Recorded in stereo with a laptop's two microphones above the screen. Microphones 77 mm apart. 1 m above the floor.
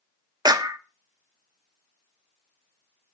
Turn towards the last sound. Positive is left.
turn(degrees=-55)  # may be behind; listen again after turning